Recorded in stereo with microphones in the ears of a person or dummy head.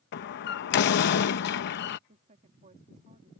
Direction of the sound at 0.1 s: 55° left (ahead or behind).